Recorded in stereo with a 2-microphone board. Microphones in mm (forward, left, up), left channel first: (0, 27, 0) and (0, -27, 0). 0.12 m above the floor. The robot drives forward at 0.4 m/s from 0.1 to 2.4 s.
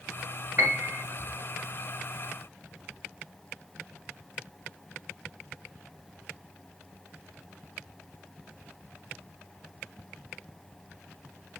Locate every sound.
0.6 s a piano: 40° right (ahead or behind), 1.2 m